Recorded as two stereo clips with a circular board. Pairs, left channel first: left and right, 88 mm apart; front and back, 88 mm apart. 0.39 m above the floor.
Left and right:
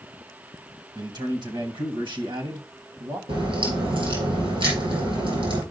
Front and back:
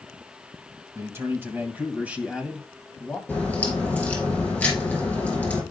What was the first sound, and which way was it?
A man speaking, 125° right.